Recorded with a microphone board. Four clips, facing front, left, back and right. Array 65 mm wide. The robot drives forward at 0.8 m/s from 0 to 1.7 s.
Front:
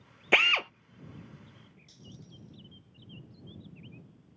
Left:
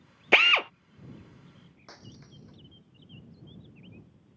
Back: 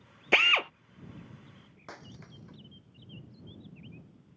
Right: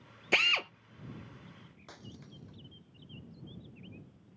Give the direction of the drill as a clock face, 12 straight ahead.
9 o'clock.